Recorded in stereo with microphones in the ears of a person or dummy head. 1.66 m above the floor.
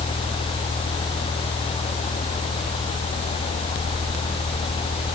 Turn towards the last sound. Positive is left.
No sound to turn to.